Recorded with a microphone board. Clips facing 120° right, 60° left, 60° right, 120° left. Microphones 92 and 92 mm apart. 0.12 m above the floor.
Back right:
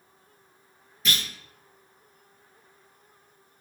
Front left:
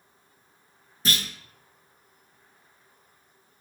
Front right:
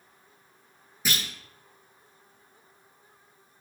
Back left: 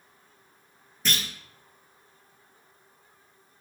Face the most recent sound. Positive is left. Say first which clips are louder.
# front left 1 dB, back left 1 dB
turn(degrees=20)